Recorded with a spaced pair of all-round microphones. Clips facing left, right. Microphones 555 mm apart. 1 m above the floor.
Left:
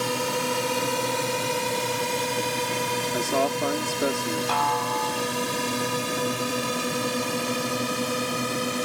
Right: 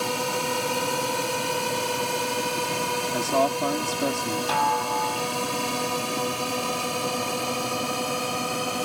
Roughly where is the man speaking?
Right.